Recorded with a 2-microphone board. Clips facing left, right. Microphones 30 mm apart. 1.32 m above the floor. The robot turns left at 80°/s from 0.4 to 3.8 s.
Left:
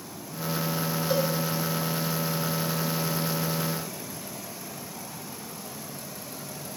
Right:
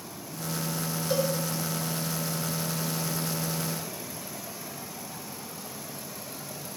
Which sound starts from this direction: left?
A cowbell, at 1.1 s.